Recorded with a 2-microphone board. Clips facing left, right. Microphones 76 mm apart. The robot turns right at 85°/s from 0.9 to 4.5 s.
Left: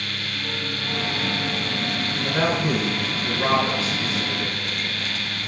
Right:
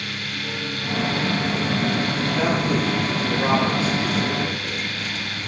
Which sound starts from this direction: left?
A man speaking, at 2.2 s.